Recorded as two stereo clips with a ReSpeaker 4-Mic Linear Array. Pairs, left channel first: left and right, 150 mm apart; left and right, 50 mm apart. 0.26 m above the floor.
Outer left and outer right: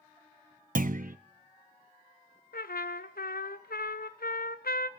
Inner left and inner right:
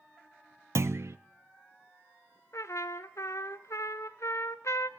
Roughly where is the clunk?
Right.